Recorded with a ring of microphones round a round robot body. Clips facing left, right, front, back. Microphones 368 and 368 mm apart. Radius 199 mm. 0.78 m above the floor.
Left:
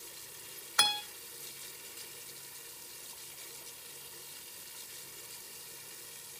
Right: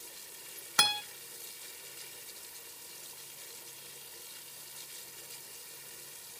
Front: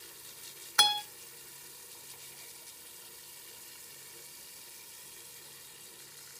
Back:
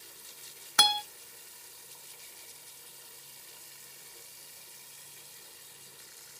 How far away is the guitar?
About 1.0 m.